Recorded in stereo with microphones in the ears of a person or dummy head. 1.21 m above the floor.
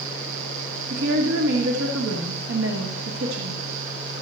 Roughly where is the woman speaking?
Right.